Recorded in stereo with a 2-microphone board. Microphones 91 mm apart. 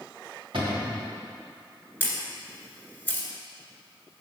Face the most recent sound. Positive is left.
turn(degrees=20)  # may be behind; listen again after turning